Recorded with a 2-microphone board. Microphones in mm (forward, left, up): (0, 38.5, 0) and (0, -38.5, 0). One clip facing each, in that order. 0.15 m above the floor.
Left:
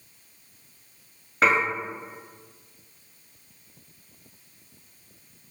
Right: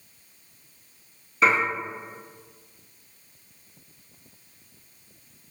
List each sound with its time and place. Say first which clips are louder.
1.4 s dishes clattering: even; 55° left (ahead or behind), 1.6 m